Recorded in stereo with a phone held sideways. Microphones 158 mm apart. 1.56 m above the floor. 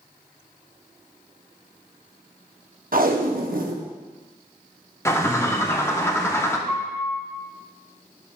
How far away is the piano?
About 1.0 m.